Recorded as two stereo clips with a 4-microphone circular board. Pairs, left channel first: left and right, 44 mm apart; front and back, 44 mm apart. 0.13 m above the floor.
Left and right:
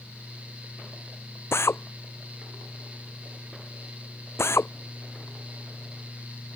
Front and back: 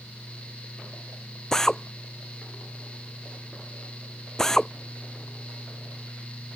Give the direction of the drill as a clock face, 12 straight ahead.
9 o'clock.